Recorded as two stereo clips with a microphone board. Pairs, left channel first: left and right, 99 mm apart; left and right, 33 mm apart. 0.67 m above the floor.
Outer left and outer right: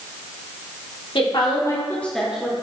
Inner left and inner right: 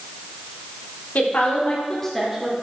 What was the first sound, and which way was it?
A woman speaking, 60° left (ahead or behind).